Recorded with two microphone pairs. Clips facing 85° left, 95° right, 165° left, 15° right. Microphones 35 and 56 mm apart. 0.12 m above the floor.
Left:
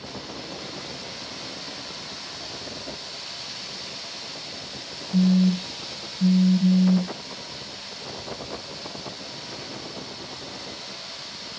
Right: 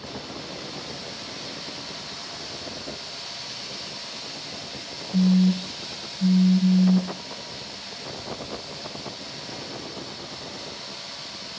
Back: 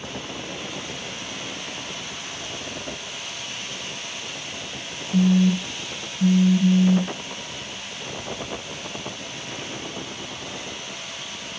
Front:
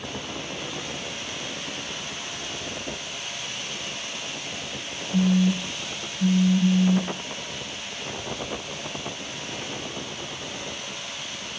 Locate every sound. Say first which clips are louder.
5.1 s a phone buzzing: even, back 3 dB; 100° left, 0.8 m